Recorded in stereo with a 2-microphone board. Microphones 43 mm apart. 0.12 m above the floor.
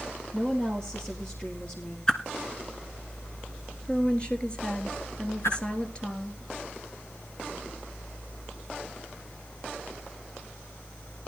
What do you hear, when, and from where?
0.3 s a woman speaking: 20° left (ahead or behind), 2.5 m
2.1 s a whoosh: 20° left (ahead or behind), 1.2 m
3.9 s a woman speaking: 25° left (ahead or behind), 1.9 m
5.4 s a whoosh: 85° left, 8.5 m